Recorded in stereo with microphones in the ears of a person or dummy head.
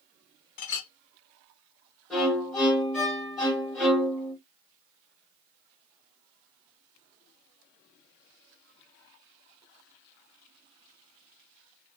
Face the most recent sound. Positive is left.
turn(degrees=0)  # may be behind; listen again after turning